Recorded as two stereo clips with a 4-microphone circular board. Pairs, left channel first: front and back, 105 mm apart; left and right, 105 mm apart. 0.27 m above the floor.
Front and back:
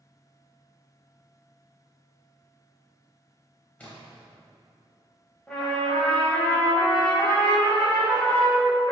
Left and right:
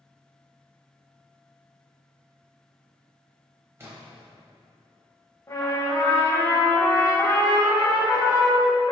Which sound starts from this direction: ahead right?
A splash, at 3.8 s.